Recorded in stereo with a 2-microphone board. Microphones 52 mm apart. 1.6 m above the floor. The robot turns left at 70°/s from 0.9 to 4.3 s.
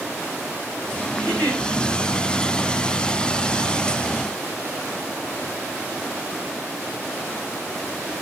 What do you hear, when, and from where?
1.1 s a giggle: 65° right, 8.5 m; by 1.6 s 95° right, 8.5 m